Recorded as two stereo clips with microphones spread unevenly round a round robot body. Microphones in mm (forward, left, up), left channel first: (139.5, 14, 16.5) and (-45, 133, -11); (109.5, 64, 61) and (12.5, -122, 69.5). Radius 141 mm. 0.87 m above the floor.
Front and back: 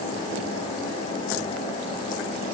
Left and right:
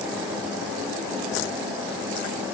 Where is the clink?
I don't hear a clink.